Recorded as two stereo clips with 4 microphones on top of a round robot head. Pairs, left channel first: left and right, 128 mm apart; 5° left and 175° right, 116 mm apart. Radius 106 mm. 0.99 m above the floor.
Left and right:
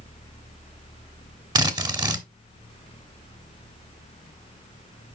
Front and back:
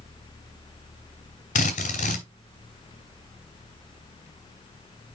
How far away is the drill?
About 1.2 m.